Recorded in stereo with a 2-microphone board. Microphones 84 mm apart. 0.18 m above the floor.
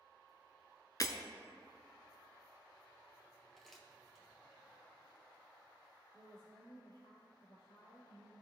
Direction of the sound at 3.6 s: 5° left (ahead or behind).